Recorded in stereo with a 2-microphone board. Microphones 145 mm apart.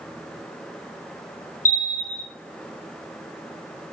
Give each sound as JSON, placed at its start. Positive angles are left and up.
{"t": 1.6, "sound": "a bell", "side_deg": 65, "distance_m": 0.7}